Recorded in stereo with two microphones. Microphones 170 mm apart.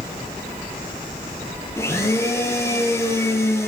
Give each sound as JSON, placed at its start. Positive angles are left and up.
{"t": 1.8, "sound": "a blender", "side_deg": 15, "distance_m": 5.0}